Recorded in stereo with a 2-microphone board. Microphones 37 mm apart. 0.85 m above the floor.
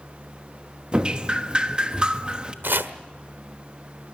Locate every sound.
0.9 s dripping: 25° right (ahead or behind), 1.1 m
2.6 s chopping: 75° right (ahead or behind), 1.2 m